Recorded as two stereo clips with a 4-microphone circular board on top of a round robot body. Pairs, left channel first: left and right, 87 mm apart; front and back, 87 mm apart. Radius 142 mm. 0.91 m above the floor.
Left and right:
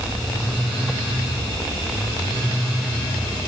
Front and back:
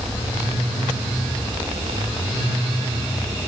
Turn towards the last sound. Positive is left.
No sound to turn to.